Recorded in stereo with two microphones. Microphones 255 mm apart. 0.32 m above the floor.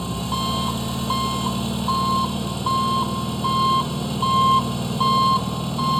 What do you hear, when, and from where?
0.0 s an engine running: centre (ahead or behind)